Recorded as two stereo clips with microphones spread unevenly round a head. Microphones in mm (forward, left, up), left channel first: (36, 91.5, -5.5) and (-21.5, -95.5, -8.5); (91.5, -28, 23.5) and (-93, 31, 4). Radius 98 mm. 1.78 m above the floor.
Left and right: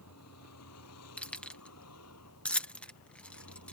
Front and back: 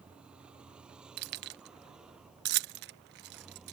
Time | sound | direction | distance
0.0 | a vehicle | 75° left | ?
1.2 | keys jangling | 155° left | ?